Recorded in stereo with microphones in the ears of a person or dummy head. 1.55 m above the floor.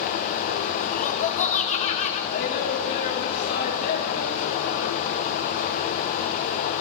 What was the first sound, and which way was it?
Laughter, 45° left (ahead or behind).